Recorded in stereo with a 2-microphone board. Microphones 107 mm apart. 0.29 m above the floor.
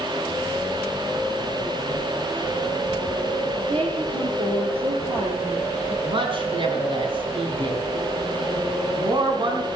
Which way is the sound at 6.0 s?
50° right (ahead or behind).